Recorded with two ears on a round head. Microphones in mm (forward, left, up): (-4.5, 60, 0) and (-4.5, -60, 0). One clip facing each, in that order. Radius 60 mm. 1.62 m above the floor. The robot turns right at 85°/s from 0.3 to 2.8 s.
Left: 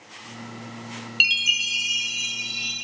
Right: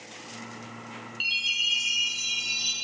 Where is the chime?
85° left, 0.8 m; by 2.7 s 145° right, 0.8 m.